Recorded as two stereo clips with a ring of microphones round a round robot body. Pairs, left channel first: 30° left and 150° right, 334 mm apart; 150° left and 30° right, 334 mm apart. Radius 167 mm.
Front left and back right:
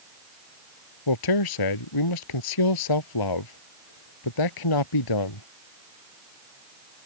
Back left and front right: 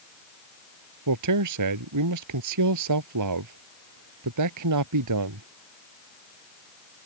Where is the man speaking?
5° left.